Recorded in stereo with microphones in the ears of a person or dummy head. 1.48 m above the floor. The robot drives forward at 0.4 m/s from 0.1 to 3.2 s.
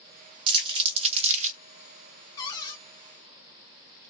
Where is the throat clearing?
No throat clearing in this recording.